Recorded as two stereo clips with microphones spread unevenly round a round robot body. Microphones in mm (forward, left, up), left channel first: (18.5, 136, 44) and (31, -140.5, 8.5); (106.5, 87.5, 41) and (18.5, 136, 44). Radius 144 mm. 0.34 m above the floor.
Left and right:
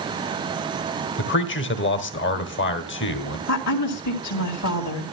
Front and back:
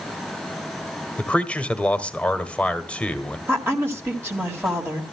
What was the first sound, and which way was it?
A man speaking, 45° left.